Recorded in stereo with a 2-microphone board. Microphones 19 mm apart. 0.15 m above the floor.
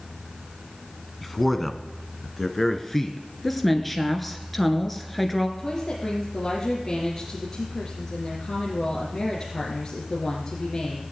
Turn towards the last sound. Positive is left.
turn(degrees=25)  # may be behind; listen again after turning